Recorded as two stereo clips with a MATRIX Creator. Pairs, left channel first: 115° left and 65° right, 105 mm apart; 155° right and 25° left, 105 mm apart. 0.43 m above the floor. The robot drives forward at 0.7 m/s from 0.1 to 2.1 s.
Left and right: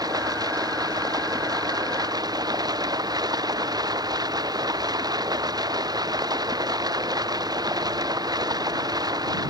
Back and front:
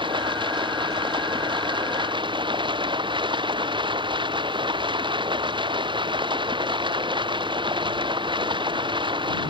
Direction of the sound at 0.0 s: 15° right.